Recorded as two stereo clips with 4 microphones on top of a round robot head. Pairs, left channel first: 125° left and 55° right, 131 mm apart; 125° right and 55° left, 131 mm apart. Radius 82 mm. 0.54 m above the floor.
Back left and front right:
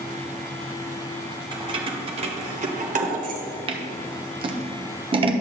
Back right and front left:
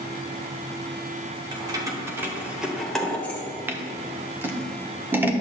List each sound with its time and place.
1.5 s keys jangling: straight ahead, 1.3 m; by 3.5 s 50° right, 1.3 m
3.7 s scissors: 15° right, 1.0 m